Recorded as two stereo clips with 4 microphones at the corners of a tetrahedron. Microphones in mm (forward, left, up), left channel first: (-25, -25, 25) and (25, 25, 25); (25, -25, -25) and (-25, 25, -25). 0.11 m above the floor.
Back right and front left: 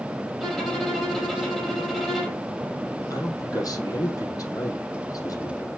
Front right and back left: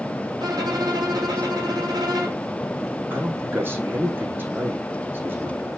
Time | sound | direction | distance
0.4 | a violin | 140° left | 5 m
3.1 | a man speaking | 165° right | 4.5 m